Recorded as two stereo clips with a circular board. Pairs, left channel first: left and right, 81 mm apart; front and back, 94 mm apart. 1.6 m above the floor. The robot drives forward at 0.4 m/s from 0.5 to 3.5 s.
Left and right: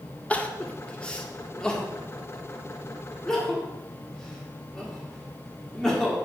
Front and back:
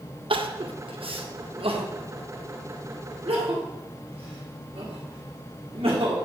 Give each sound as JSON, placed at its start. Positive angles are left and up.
{"t": 0.3, "sound": "crying", "azimuth_deg": 160, "distance_m": 0.5}